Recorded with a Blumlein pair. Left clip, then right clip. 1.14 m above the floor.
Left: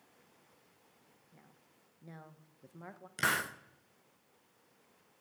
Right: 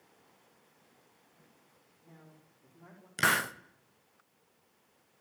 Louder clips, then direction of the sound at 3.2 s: Right 4 dB; 15° right.